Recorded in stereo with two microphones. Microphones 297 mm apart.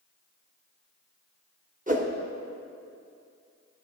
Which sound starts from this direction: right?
A whoosh, at 1.9 s.